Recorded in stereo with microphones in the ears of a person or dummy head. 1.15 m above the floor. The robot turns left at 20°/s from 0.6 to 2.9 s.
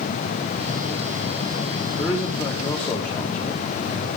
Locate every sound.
2.0 s a man speaking: 15° left (ahead or behind), 1.4 m; by 4.1 s 30° left (ahead or behind), 1.4 m